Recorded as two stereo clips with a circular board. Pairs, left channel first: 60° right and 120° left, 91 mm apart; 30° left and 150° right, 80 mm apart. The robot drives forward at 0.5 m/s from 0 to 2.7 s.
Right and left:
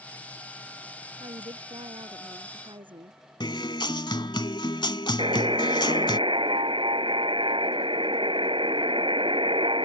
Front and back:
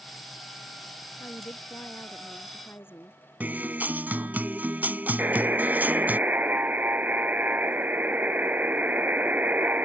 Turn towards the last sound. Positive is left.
turn(degrees=140)